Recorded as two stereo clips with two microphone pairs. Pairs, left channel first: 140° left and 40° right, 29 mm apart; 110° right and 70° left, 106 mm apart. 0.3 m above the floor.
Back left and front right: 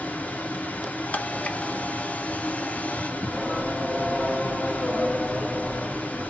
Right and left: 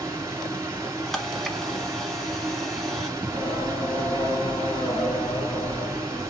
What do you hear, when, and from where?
0.0 s running water: 130° left, 2.5 m
1.1 s a camera shutter: 165° left, 1.0 m
3.2 s singing: 160° right, 3 m